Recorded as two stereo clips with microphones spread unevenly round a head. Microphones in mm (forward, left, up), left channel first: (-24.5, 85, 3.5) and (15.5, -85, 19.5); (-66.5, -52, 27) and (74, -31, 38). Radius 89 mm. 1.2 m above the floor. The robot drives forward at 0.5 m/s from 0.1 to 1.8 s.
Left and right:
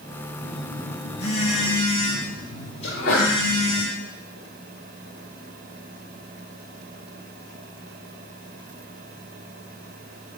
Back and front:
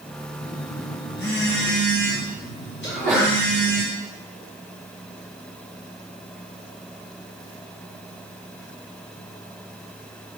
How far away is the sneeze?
About 2.5 m.